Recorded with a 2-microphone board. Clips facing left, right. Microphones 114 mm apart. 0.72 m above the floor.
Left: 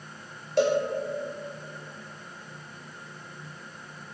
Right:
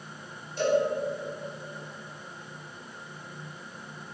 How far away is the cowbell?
About 1.9 m.